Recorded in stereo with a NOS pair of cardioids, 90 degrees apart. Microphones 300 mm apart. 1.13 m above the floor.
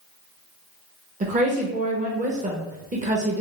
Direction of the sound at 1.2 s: 25° right.